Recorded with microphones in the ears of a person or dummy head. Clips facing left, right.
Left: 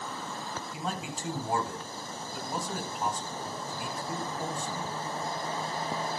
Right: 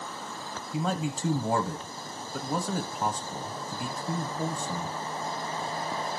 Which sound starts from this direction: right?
A man speaking, at 0.7 s.